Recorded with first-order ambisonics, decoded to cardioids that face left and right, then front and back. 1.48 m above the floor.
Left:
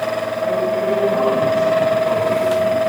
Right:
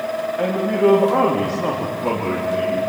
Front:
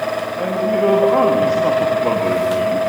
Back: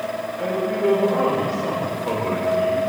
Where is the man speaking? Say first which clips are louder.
Right 1 dB, front 5 dB; 55° right, 3 m; by 2.8 s 20° right, 4 m.